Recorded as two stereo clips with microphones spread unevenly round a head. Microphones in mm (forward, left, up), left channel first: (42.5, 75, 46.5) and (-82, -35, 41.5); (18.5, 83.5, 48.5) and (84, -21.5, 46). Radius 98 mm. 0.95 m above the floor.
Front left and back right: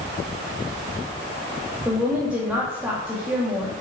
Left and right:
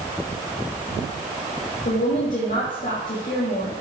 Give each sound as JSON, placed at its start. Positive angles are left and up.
{"t": 1.9, "sound": "a woman speaking", "azimuth_deg": 140, "distance_m": 1.6}